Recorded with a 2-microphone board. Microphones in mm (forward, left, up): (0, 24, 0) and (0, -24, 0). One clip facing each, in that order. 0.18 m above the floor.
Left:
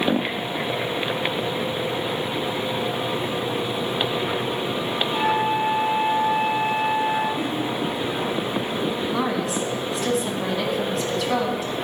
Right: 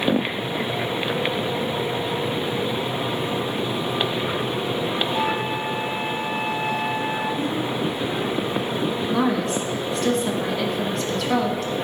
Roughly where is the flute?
Centre.